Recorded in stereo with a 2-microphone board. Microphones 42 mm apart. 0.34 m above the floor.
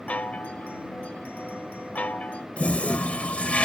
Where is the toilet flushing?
35° left (ahead or behind).